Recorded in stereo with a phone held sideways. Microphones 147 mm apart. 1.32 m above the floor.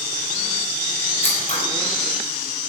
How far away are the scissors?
About 5.5 m.